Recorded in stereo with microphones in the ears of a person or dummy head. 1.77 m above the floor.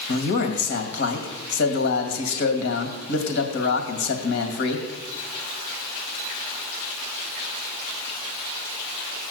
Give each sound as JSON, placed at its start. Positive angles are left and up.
{"t": 0.1, "sound": "a man speaking", "side_deg": 65, "distance_m": 2.5}